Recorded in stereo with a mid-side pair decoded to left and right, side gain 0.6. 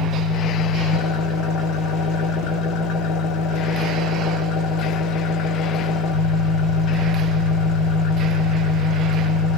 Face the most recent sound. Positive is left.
turn(degrees=65)